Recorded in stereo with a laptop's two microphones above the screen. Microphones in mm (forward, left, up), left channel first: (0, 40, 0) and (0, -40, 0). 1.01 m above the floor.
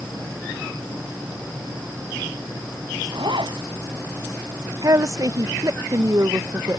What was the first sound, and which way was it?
A zipper, 80° right.